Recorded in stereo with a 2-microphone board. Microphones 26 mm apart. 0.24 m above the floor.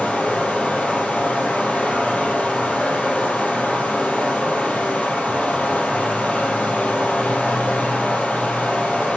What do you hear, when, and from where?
0.0 s running water: 75° left (ahead or behind), 3 m